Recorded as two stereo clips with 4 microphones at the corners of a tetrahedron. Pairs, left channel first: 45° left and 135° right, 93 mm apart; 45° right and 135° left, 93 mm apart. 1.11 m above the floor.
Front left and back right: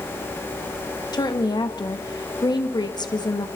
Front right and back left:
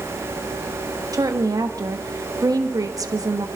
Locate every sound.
1.1 s a woman speaking: 85° left, 1.3 m